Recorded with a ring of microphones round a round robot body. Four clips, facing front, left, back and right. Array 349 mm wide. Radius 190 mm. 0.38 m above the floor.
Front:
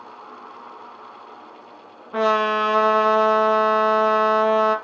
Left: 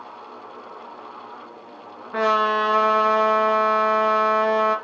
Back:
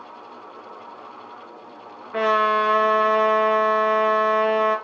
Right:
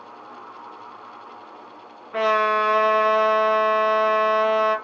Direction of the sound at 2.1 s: 35° left.